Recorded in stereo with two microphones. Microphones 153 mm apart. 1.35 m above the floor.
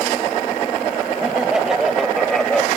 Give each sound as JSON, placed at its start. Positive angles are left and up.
{"t": 1.2, "sound": "laughter", "side_deg": -5}